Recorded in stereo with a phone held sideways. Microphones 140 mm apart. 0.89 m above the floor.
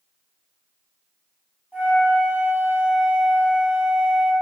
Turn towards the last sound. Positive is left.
turn(degrees=-10)  # may be behind; listen again after turning